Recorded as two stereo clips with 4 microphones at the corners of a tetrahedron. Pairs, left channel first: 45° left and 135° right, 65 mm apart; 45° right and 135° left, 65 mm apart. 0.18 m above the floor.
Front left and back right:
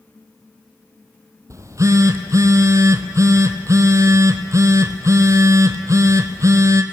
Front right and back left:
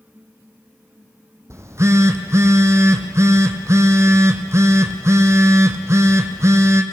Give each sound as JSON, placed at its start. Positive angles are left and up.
{"t": 1.5, "sound": "a phone buzzing", "azimuth_deg": 180, "distance_m": 1.5}